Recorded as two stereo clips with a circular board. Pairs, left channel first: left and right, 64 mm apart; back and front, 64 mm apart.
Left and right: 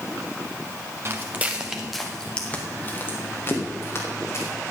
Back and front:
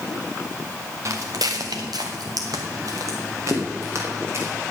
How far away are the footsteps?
About 1.5 m.